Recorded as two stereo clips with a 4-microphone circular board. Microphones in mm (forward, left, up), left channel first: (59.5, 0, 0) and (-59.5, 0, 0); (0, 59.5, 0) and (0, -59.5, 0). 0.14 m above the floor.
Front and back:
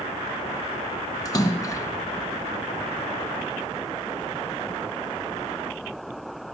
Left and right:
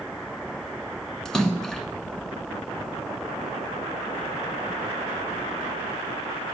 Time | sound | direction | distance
1.2 | a splash | 10° left | 1.0 m